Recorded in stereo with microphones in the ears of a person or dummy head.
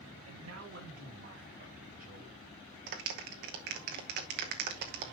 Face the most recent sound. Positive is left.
turn(degrees=-50)  # may be behind; listen again after turning